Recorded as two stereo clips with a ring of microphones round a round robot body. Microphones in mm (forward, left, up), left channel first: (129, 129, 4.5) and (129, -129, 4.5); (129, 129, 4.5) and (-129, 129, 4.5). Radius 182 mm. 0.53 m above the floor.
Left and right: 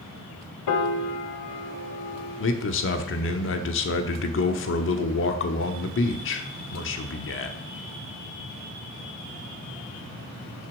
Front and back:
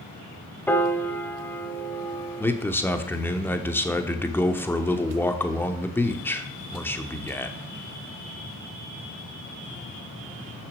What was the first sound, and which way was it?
A piano, 85° left.